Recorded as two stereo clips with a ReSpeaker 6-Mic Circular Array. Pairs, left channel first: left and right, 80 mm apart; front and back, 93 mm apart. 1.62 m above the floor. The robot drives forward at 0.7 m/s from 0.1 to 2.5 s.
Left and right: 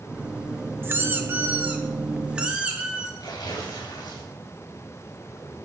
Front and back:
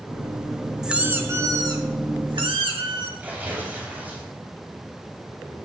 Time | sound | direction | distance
0.8 | a squeak | 100° right | 0.7 m
3.2 | tearing paper | 110° left | 3 m